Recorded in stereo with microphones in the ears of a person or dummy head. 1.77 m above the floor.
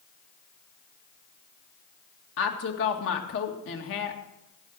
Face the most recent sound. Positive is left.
turn(degrees=65)  # may be behind; listen again after turning